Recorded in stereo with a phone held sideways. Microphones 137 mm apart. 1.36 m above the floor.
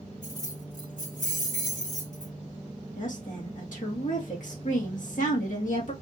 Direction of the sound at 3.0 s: 70° left (ahead or behind).